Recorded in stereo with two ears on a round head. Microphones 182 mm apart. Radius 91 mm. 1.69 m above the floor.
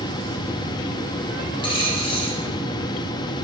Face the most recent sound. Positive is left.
turn(degrees=25)  # may be behind; listen again after turning